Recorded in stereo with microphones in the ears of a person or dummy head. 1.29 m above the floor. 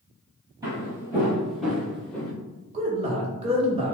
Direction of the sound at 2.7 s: 30° right (ahead or behind).